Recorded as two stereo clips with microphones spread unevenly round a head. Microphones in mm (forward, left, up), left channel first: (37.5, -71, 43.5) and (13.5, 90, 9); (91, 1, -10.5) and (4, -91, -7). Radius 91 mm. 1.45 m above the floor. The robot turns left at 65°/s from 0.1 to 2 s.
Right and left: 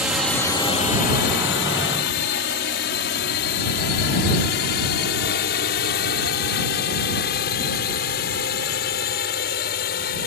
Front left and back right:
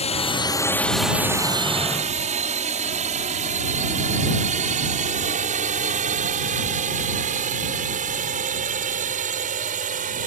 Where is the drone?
15° left; by 10.3 s 120° right.